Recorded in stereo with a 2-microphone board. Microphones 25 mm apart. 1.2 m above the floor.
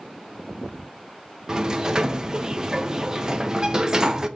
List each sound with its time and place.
1.5 s a sliding door: 30° right (ahead or behind), 0.8 m